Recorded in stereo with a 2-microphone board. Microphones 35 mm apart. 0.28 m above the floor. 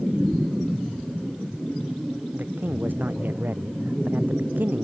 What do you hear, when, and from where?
2.3 s a man speaking: 60° right (ahead or behind)